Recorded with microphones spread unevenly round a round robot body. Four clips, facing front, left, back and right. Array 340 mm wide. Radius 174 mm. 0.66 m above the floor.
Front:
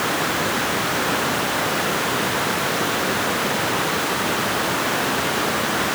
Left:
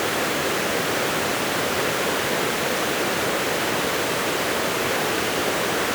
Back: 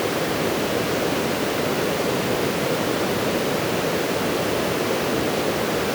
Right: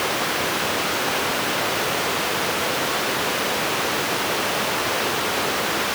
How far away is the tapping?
No tapping in this recording.